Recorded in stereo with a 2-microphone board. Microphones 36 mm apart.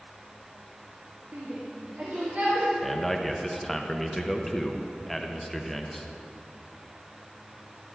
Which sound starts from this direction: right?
A shout, at 1.3 s.